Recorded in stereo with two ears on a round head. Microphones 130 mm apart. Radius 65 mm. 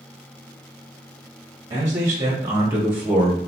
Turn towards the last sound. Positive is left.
turn(degrees=-10)  # may be behind; listen again after turning